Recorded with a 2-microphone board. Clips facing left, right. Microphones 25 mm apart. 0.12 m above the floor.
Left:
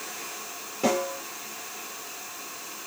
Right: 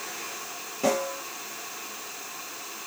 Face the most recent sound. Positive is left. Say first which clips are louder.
# even
turn(degrees=5)  # may be behind; listen again after turning